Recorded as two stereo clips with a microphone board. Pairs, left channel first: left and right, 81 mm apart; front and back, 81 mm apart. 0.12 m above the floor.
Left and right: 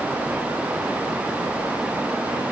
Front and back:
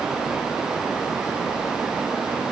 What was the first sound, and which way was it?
Only background noise.